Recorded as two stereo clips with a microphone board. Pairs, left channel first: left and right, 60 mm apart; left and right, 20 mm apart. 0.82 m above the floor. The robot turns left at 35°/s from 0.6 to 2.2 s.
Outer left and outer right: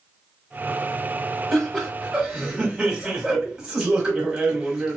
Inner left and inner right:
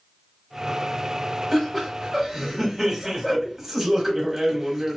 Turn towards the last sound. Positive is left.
turn(degrees=-10)  # may be behind; listen again after turning